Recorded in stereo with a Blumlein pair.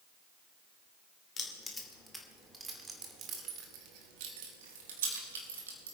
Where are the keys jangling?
20° left, 2.5 m; by 6.0 s 70° right, 3.5 m.